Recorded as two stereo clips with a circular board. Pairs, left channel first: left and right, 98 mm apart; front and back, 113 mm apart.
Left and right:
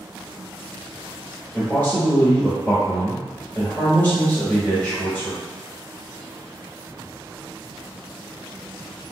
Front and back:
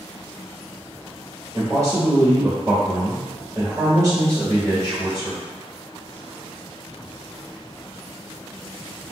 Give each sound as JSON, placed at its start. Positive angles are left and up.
{"t": 1.5, "sound": "a man speaking", "azimuth_deg": 150, "distance_m": 1.6}